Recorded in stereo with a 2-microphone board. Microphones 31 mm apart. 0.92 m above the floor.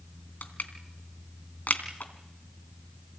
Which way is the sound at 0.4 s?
75° left (ahead or behind).